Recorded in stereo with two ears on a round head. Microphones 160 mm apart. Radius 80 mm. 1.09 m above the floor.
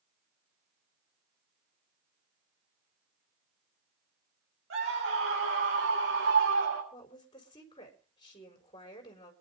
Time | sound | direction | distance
4.7 | a scream | 80° right | 4.5 m
6.9 | a woman speaking | 25° left (ahead or behind) | 4 m